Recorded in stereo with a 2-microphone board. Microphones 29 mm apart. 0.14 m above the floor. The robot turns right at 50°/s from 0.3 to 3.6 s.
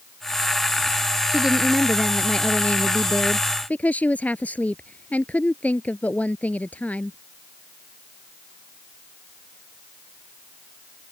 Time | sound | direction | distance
1.3 | a woman speaking | 30° right | ?